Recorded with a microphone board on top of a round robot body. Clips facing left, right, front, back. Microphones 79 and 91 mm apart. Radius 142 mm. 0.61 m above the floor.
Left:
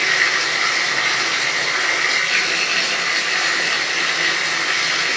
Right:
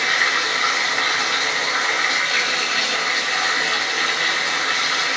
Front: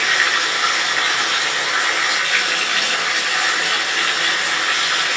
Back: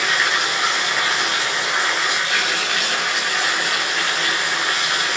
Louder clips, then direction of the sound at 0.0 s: Left 1 dB, front 1 dB; 105° left.